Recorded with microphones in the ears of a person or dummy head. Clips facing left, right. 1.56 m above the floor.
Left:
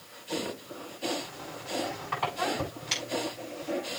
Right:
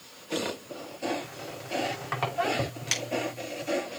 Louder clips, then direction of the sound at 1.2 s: Right 1 dB; 65° right (ahead or behind).